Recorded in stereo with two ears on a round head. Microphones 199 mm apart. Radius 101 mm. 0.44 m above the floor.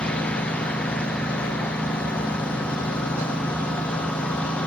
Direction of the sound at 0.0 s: 5° left (ahead or behind).